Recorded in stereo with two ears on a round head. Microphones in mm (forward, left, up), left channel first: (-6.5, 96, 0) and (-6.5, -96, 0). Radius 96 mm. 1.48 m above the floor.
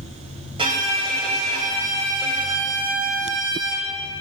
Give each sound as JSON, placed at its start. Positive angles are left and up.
{"t": 0.6, "sound": "a violin", "side_deg": -25, "distance_m": 1.4}